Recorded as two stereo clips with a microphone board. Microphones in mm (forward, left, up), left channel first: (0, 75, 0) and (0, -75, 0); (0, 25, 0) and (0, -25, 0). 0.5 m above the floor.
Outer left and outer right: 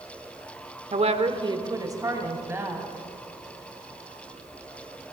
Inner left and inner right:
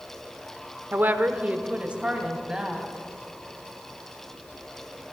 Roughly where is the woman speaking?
Right.